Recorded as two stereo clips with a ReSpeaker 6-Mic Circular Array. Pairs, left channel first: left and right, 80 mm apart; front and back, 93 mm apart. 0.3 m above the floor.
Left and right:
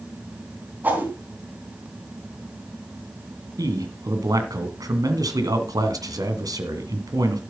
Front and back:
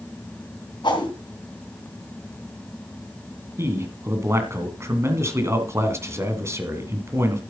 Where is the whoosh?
25° right, 3 m.